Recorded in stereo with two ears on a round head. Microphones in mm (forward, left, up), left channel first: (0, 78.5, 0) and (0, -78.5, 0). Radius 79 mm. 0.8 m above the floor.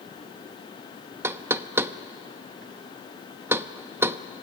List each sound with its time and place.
1.2 s knocking: 15° right (ahead or behind), 0.6 m